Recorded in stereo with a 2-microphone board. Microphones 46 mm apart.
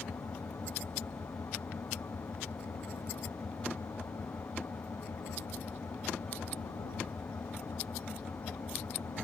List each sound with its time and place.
0.0 s an engine running: 75° left (ahead or behind)